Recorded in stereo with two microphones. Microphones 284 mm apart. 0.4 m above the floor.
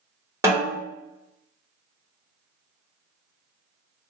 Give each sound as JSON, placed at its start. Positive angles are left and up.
{"t": 0.4, "sound": "a snare drum", "side_deg": -10, "distance_m": 1.5}